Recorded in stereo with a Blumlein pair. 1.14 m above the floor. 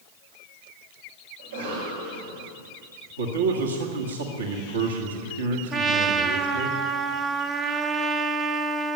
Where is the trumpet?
25° right, 0.8 m.